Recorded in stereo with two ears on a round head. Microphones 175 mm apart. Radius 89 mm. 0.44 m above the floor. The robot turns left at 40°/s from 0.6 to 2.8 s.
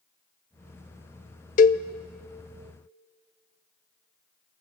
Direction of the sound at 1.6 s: 40° left (ahead or behind).